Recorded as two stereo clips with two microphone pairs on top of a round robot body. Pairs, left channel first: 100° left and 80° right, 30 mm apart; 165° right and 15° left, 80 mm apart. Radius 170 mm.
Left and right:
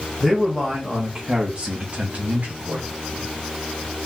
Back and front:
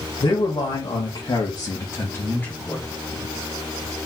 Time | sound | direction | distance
0.2 | a man speaking | straight behind | 1.6 m